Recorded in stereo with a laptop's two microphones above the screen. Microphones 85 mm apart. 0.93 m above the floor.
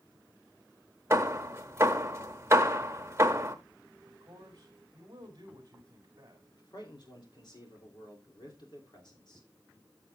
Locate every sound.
1.1 s hammering: 30° right (ahead or behind), 0.7 m
4.0 s a man speaking: 45° right (ahead or behind), 2.5 m
6.5 s a man speaking: 60° left (ahead or behind), 3 m